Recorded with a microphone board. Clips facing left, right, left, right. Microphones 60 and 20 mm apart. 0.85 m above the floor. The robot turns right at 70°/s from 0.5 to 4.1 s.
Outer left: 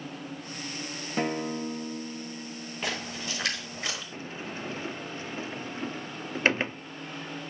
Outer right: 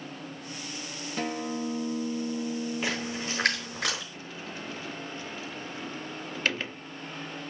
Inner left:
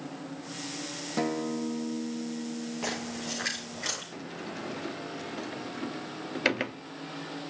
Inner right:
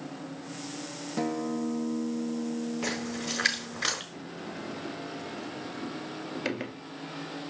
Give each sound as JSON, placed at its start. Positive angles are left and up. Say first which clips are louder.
{"t": 1.2, "sound": "a guitar", "louder": "outer left 2 dB, even", "azimuth_deg": 155, "distance_m": 0.9}
{"t": 2.8, "sound": "a splash", "louder": "outer right 2 dB, inner right 2 dB", "side_deg": -5, "distance_m": 5.0}
{"t": 4.1, "sound": "a sliding door", "louder": "outer left 2 dB, inner left 1 dB", "side_deg": 35, "distance_m": 0.7}